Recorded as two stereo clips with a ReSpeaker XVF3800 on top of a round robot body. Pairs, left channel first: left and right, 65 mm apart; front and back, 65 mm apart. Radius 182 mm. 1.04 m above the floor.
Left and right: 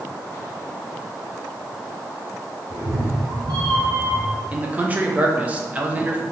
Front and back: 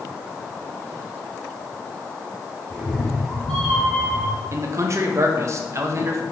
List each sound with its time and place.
2.7 s a cat meowing: 60° right, 1.5 m; by 4.4 s 100° right, 1.1 m
4.5 s a man speaking: 150° right, 0.9 m